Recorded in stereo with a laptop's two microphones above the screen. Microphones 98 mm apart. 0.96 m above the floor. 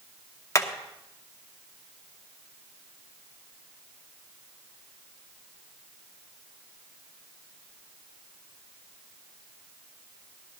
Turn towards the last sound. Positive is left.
turn(degrees=30)  # may be behind; listen again after turning